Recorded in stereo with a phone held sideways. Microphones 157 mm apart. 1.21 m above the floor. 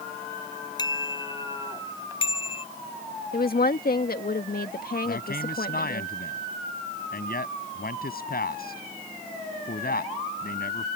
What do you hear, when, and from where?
0.8 s a bicycle bell: 25° left (ahead or behind); by 2.6 s 35° left (ahead or behind)
3.3 s a woman speaking: 70° left (ahead or behind)
5.0 s a man speaking: 75° left (ahead or behind)